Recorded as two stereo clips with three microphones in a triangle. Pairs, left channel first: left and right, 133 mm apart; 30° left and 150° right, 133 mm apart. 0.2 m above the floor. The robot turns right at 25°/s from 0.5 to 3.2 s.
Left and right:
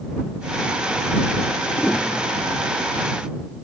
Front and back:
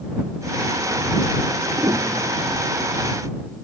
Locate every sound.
1.8 s a piano: 160° left; by 2.7 s 175° right